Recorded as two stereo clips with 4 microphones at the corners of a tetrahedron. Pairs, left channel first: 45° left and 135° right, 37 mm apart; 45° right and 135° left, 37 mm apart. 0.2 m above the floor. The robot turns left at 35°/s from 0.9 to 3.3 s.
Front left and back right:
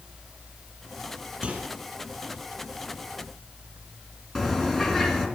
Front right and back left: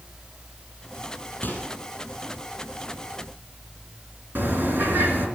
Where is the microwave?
85° right, 5 m; by 1.7 s 90° right, 5 m.